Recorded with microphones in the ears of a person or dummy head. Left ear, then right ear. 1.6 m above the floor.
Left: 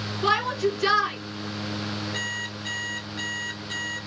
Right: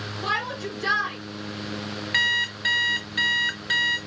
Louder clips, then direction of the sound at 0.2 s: Left 5 dB; 70° left (ahead or behind).